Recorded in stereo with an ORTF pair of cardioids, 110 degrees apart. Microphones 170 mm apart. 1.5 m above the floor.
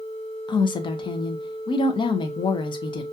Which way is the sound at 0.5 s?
30° left.